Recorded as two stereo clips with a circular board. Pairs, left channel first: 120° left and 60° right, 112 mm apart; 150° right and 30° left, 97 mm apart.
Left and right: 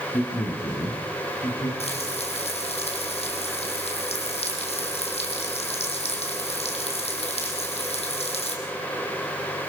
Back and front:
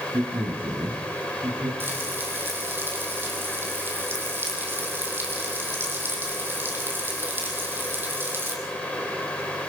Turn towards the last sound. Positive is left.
turn(degrees=100)